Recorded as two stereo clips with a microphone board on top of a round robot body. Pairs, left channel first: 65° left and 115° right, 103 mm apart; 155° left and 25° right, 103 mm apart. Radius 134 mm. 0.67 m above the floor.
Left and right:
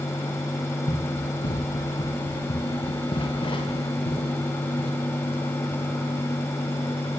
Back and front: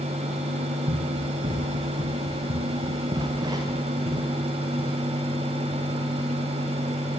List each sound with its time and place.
0.9 s running footsteps: 20° left, 9 m; by 4.9 s 30° left, 10.5 m